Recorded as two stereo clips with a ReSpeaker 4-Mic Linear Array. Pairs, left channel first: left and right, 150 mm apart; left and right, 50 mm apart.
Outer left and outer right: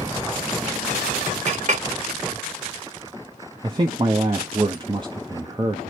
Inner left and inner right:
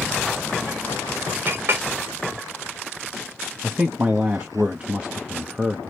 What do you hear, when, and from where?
1.5 s a clink: 50° right (ahead or behind), 0.8 m
3.6 s a man speaking: 30° right (ahead or behind), 0.6 m